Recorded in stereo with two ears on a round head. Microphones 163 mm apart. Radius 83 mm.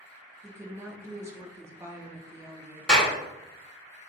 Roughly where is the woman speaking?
Centre.